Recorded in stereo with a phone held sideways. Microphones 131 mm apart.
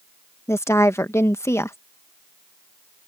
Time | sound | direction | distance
0.5 | a woman speaking | 20° left (ahead or behind) | ?